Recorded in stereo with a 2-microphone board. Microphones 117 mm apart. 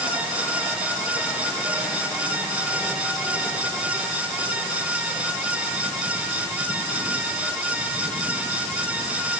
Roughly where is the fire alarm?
No fire alarm in this recording.